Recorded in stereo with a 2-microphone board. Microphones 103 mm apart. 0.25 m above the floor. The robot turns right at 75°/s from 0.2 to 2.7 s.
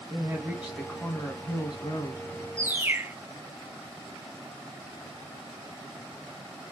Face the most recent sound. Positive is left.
turn(degrees=-25)  # may be behind; listen again after turning